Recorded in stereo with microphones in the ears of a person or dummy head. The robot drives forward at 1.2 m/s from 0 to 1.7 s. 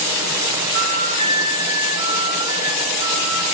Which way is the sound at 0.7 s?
55° right (ahead or behind).